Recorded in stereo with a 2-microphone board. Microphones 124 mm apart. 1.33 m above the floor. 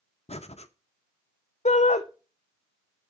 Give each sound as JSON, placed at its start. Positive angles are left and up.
{"t": 0.3, "sound": "breathing", "side_deg": 60, "distance_m": 0.8}
{"t": 1.6, "sound": "a shout", "side_deg": 70, "distance_m": 0.7}